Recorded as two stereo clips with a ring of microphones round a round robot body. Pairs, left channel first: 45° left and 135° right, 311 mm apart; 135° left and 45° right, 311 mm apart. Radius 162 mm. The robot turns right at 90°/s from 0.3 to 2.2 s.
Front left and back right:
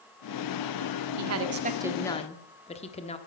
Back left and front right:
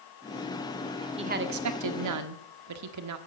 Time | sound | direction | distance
1.2 | a woman speaking | 115° right | 1.5 m